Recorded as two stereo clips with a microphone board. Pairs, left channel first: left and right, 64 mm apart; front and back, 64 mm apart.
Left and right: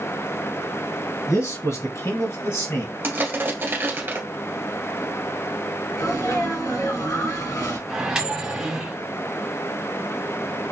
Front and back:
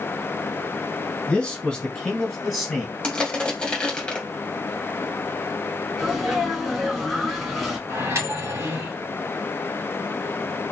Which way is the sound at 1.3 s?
75° left.